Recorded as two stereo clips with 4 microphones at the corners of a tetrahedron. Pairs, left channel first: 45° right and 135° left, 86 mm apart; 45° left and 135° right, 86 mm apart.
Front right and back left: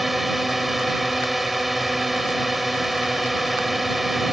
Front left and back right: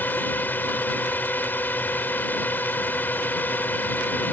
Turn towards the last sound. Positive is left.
turn(degrees=50)